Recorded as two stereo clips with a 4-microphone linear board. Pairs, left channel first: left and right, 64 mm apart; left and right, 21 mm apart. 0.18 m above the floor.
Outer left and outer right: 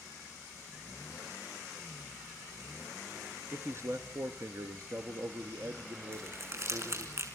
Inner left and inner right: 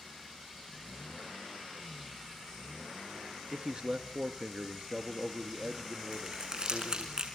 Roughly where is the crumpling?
Right.